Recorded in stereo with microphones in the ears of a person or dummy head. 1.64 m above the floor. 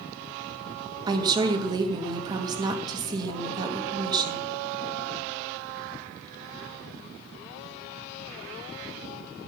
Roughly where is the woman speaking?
Right.